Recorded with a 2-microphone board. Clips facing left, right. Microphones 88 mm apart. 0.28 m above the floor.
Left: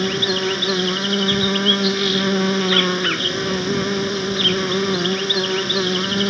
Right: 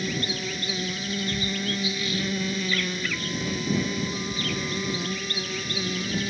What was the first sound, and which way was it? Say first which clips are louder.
An insect: left 10 dB; 80° left.